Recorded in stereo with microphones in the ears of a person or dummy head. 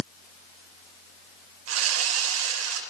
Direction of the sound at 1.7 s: 80° right.